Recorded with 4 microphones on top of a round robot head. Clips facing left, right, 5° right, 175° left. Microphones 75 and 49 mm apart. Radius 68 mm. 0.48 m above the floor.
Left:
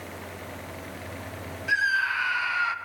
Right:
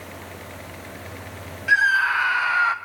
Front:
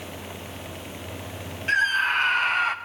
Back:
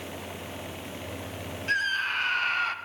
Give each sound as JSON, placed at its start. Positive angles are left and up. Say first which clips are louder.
{"t": 1.7, "sound": "a scream", "louder": "right 6 dB, front 6 dB", "azimuth_deg": -65, "distance_m": 1.7}